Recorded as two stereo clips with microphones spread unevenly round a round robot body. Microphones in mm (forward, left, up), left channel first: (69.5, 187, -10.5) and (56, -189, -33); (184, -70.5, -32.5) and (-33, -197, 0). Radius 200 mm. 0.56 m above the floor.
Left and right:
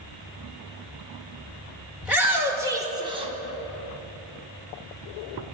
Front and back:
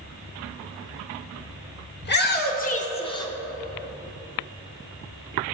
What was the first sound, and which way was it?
A shout, 5° right.